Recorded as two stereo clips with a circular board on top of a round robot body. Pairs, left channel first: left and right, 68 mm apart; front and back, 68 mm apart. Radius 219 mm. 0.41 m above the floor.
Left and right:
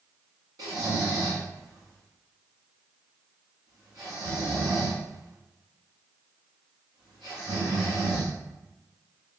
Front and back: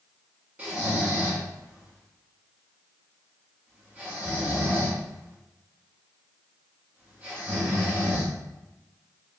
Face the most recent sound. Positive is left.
turn(degrees=-110)